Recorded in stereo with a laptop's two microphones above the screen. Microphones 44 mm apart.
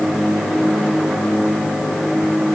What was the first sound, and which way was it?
Only background noise.